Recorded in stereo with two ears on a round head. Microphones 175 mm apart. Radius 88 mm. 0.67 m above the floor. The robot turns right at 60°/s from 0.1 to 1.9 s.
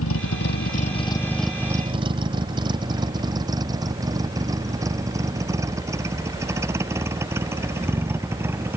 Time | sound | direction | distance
0.0 | a vehicle | 75° left (ahead or behind) | ?